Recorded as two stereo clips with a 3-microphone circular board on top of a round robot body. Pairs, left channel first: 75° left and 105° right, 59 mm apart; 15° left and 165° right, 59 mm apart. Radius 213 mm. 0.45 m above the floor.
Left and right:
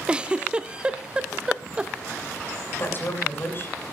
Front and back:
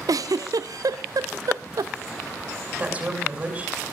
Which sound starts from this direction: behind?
A giggle, at 0.1 s.